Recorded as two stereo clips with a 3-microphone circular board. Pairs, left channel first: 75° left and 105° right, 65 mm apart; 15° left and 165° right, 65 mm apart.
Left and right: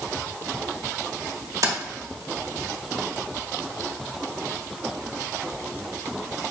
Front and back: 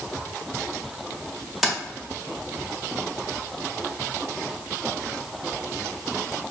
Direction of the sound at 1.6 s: 80° right.